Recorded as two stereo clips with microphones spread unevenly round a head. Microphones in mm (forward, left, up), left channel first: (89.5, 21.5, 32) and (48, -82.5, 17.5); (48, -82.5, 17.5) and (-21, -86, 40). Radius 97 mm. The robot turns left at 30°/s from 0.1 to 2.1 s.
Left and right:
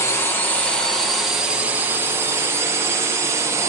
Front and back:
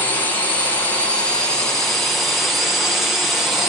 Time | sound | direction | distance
0.0 | a drone | 10° left | ?